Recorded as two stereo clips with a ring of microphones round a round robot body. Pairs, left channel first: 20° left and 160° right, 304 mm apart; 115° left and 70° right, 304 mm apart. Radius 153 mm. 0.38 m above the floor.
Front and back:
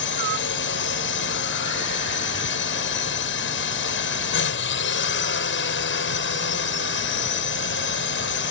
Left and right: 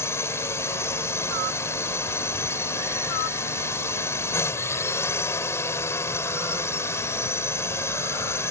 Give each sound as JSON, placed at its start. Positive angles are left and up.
{"t": 0.0, "sound": "a drone", "azimuth_deg": 35}